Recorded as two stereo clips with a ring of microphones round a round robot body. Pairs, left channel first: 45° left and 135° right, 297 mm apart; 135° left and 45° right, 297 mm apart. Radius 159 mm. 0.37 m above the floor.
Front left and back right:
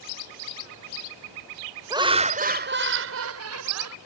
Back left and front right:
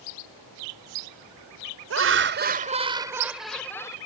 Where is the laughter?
60° right; by 4.0 s 150° right.